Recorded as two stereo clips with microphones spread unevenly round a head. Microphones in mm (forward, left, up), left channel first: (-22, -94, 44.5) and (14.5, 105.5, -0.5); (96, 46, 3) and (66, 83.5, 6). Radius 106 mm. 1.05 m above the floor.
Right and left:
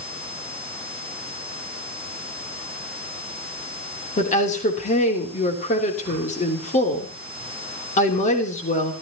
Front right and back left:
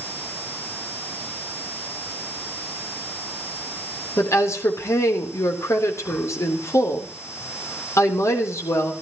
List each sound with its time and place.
4.2 s a woman speaking: 40° right, 3.5 m